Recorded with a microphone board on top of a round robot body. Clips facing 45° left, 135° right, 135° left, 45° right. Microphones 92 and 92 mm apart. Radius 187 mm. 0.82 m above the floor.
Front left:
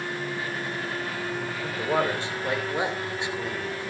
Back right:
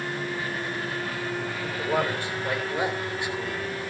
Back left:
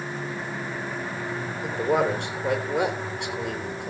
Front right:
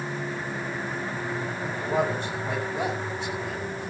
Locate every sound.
1.6 s a man speaking: 115° left, 4 m